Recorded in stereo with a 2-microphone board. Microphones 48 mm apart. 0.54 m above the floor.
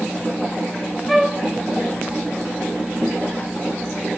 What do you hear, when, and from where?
1.1 s a flute: centre (ahead or behind), 0.8 m